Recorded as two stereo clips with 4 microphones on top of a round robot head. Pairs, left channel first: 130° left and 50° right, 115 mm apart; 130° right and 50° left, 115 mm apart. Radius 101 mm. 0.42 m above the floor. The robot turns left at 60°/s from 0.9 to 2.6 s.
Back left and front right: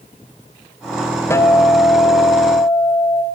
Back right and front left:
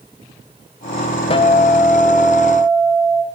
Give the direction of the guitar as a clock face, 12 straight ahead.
5 o'clock.